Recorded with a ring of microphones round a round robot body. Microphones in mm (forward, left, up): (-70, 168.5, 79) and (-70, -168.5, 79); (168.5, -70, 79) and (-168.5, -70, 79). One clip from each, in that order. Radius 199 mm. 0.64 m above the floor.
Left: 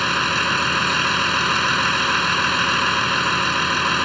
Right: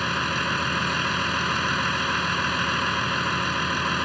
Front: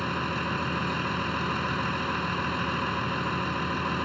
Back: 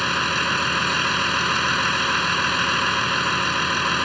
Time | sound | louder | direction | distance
0.0 | a vehicle | left 6 dB, back 9 dB | 135° left | ?